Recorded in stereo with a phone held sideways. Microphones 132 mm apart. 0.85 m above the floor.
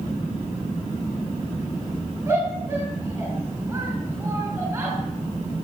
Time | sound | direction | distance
2.3 | a shout | 15° right (ahead or behind) | 6 m